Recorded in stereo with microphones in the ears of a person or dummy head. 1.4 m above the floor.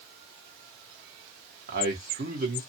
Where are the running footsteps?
No running footsteps in this recording.